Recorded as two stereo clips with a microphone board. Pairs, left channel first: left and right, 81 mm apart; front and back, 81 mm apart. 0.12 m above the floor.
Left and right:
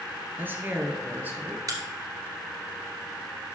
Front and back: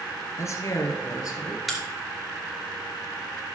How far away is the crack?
About 2 m.